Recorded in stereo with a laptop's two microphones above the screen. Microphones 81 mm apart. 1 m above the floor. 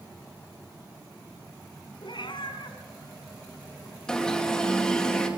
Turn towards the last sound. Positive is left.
turn(degrees=10)  # may be behind; listen again after turning